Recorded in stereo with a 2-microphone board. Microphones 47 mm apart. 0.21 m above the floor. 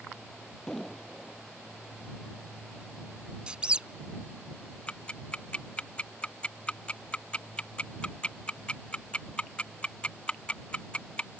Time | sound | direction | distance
0.7 | an explosion | 10° left (ahead or behind) | ?
3.5 | a squeak | 25° right (ahead or behind) | ?
4.9 | ticking | 25° left (ahead or behind) | ?